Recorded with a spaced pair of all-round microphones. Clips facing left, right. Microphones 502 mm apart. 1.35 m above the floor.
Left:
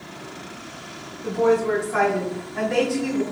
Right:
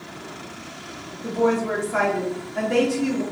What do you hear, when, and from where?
1.2 s a woman speaking: 50° right (ahead or behind), 3 m